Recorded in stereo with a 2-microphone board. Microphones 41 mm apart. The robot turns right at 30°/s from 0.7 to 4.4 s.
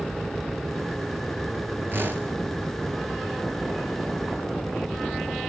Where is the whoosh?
55° right (ahead or behind), 2.5 m; by 2.3 s 60° right (ahead or behind), 2.5 m.